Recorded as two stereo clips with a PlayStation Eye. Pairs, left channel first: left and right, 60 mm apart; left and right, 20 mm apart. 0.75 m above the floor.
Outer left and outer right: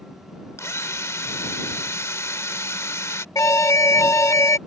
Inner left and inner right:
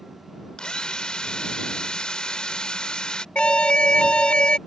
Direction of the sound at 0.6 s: 55° left (ahead or behind).